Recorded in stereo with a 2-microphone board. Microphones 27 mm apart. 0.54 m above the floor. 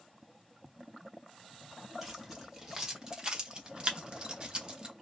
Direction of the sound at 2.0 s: 15° right (ahead or behind).